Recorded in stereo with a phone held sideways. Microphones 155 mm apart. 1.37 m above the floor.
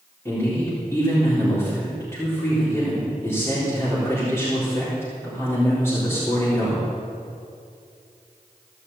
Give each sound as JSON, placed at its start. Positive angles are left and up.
{"t": 0.2, "sound": "a man speaking", "side_deg": 15, "distance_m": 4.0}